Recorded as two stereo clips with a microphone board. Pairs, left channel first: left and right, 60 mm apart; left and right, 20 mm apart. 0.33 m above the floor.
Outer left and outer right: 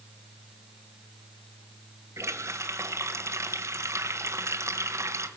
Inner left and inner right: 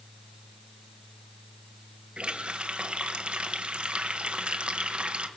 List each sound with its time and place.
2.2 s a running tap: 55° right (ahead or behind), 1.1 m